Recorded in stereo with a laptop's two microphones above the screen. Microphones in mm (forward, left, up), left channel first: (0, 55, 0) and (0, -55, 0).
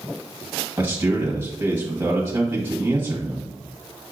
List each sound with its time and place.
0.8 s a man speaking: 20° right (ahead or behind), 1.1 m